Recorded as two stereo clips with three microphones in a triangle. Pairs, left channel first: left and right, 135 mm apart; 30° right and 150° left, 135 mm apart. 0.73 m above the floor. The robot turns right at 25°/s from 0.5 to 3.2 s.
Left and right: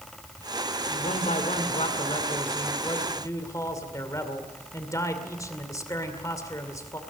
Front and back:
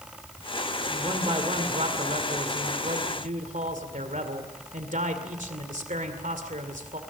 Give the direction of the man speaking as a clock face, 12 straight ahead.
9 o'clock.